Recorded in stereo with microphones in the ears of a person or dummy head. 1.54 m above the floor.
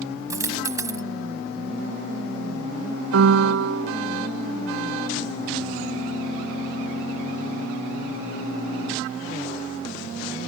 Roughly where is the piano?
Right.